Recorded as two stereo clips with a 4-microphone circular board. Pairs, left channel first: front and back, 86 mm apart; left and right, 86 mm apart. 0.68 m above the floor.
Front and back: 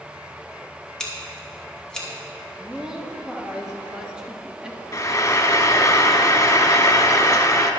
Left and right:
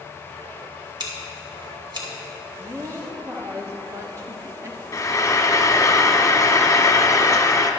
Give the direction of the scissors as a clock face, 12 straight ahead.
3 o'clock.